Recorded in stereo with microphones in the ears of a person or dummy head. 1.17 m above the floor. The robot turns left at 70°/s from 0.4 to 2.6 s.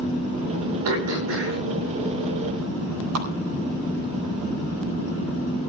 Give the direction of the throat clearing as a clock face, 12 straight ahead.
3 o'clock.